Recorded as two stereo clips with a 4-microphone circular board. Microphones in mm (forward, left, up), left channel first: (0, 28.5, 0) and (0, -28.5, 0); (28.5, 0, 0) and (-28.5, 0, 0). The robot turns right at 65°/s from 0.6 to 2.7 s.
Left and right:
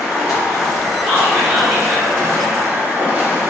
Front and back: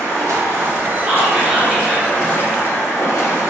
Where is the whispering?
130° right, 0.8 m; by 2.1 s 65° right, 0.8 m.